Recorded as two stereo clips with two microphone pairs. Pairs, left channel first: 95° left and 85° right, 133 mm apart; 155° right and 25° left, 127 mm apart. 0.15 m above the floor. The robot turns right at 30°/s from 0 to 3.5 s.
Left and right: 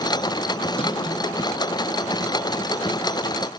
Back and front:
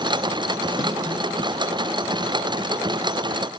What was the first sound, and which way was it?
A snare drum, 65° left.